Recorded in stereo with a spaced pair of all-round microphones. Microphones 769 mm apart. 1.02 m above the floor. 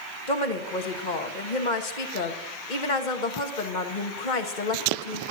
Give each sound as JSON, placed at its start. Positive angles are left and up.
{"t": 0.3, "sound": "a woman speaking", "side_deg": 75, "distance_m": 1.5}